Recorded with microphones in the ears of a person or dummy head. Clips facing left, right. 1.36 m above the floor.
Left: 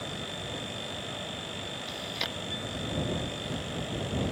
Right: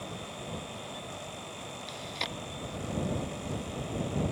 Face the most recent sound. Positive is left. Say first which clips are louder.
# left 2 dB
turn(degrees=10)  # may be behind; listen again after turning